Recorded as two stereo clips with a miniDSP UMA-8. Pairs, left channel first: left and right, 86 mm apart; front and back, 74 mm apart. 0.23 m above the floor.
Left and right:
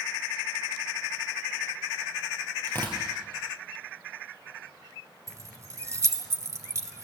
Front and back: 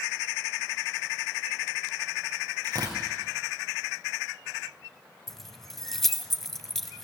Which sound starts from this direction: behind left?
Tearing paper, at 2.6 s.